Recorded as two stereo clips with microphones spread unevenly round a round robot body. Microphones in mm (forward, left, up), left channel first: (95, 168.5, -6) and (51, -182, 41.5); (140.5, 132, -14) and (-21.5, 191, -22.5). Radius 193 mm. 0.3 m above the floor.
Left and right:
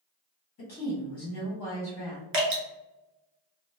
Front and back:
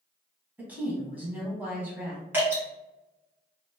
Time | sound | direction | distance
0.6 | a woman speaking | 85° left | 1.5 m
2.3 | dripping | 135° right | 1.2 m